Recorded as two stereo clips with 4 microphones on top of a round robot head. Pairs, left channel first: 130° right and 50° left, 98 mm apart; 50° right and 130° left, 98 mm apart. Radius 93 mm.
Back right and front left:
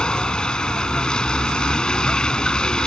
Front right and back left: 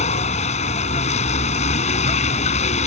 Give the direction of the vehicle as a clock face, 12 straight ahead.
2 o'clock.